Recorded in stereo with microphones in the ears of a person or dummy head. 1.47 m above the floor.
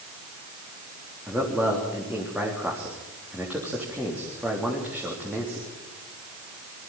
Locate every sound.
1.3 s a man speaking: 5° right (ahead or behind), 3.5 m